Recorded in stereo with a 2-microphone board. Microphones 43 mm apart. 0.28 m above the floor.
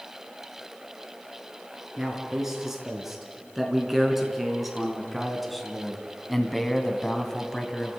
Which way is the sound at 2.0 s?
10° right (ahead or behind).